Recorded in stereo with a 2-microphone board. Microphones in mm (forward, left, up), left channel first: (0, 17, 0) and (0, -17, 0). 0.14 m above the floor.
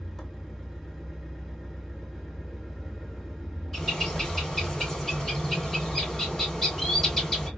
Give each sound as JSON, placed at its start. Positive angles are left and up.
{"t": 0.0, "sound": "an engine running", "side_deg": 5, "distance_m": 1.3}
{"t": 3.7, "sound": "a bird", "side_deg": 10, "distance_m": 2.0}